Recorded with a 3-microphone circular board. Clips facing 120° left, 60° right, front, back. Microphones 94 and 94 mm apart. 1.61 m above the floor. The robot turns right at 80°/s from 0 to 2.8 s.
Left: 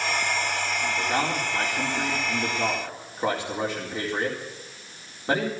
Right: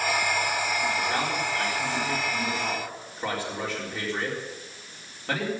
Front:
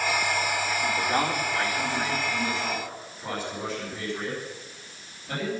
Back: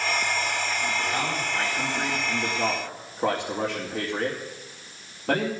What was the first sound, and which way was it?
A man speaking, 35° left.